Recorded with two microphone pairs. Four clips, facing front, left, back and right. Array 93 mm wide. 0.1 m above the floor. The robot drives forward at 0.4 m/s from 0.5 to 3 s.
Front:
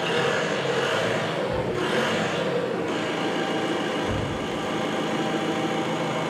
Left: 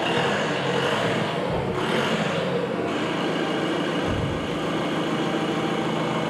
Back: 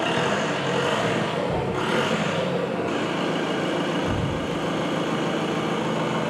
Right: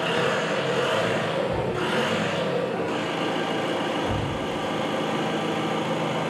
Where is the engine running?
135° left, 2.5 m; by 6.3 s 150° left, 3.5 m.